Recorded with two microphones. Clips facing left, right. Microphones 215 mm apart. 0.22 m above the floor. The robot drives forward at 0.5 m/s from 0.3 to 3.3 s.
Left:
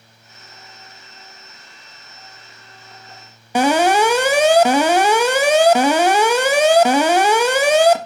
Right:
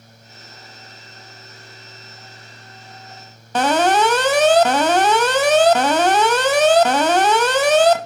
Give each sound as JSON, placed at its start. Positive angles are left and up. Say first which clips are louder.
{"t": 3.5, "sound": "an alarm", "louder": "left 2 dB", "side_deg": 10, "distance_m": 0.7}